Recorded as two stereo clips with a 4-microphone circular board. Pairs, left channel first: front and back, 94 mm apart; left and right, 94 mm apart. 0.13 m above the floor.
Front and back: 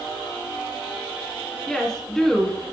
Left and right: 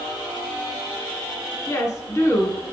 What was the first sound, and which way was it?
A woman speaking, 80° left.